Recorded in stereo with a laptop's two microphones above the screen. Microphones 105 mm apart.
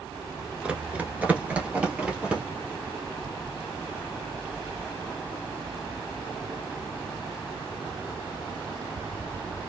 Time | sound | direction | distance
0.6 | running footsteps | 15° right (ahead or behind) | 0.8 m